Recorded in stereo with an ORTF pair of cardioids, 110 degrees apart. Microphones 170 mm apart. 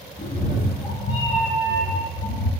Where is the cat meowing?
30° left, 2.0 m; by 2.5 s 80° left, 1.5 m.